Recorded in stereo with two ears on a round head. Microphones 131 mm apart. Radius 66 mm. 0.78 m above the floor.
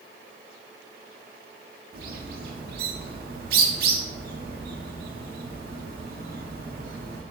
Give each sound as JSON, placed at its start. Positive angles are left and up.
{"t": 1.9, "sound": "a bird", "side_deg": -80, "distance_m": 0.8}